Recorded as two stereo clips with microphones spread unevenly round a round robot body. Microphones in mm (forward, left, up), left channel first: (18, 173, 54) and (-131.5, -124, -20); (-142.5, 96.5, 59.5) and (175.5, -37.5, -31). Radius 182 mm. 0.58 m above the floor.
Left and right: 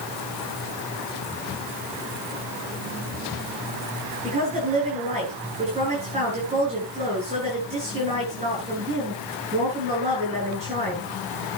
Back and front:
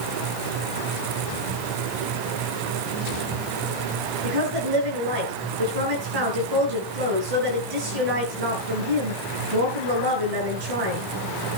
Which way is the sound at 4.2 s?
45° right.